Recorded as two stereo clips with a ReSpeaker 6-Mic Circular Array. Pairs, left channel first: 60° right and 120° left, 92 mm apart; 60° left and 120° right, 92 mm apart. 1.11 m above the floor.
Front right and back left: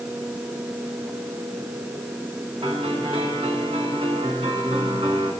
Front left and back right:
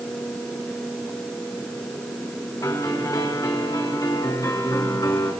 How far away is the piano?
About 5 m.